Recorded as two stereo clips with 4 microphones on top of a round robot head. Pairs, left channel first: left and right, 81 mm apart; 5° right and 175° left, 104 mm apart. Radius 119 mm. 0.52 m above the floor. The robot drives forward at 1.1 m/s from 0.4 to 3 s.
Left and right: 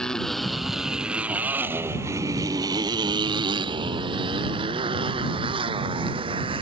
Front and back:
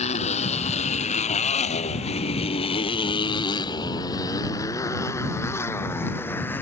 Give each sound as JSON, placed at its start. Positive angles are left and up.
{"t": 0.0, "sound": "a motorcycle", "azimuth_deg": 10}